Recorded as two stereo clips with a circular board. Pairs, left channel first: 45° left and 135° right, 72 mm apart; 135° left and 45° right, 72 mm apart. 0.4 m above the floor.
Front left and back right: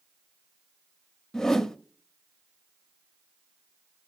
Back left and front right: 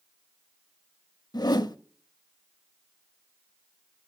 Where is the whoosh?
125° left, 0.6 m.